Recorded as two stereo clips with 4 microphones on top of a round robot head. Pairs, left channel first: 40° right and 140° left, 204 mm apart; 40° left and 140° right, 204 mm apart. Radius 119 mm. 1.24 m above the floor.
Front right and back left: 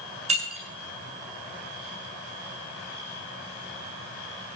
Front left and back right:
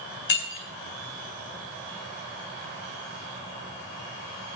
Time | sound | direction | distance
0.3 | breaking glass | 80° left | 9 m